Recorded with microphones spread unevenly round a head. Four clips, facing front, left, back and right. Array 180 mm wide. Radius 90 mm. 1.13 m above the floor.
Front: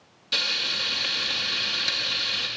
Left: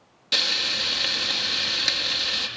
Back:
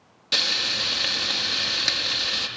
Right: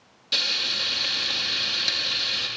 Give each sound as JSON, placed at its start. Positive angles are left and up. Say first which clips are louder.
{"t": 0.3, "sound": "frying", "louder": "left 3 dB, back 2 dB", "azimuth_deg": 145, "distance_m": 0.5}